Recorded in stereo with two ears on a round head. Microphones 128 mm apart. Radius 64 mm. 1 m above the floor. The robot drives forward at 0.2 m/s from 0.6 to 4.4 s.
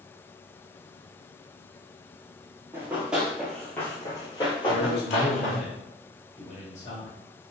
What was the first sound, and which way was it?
Running footsteps, 20° right (ahead or behind).